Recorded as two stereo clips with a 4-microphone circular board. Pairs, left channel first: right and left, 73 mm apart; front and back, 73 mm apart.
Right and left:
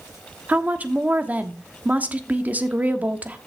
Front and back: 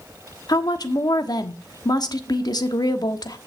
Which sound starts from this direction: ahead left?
A woman speaking, at 0.5 s.